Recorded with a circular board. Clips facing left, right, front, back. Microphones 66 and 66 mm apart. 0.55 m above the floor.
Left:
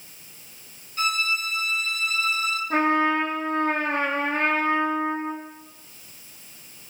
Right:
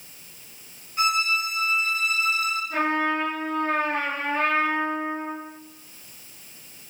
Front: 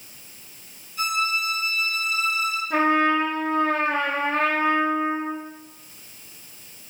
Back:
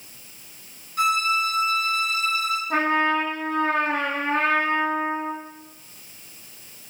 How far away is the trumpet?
About 4.5 m.